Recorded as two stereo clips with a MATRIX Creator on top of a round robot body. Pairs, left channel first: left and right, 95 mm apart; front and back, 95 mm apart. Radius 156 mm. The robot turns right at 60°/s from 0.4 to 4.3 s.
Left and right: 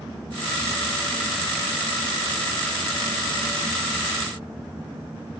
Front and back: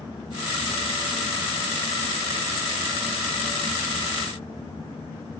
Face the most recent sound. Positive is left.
No sound to turn to.